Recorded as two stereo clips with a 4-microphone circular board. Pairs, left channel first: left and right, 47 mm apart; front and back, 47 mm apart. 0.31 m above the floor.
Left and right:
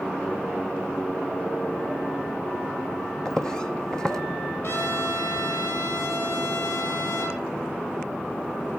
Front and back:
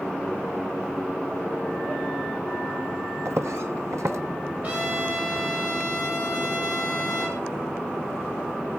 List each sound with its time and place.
3.2 s footsteps: 165° left, 1.1 m
4.6 s a trumpet: 125° left, 4.5 m